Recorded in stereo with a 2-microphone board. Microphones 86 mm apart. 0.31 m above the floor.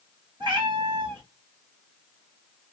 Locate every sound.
0.4 s a cat meowing: 55° right (ahead or behind), 2.5 m